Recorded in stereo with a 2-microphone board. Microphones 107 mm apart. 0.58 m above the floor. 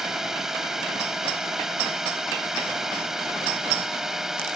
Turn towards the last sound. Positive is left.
turn(degrees=-5)  # may be behind; listen again after turning